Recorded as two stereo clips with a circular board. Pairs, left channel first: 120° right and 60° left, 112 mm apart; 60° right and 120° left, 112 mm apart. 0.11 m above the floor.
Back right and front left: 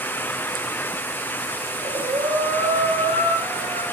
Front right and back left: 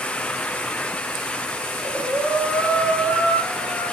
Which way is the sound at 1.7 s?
30° left.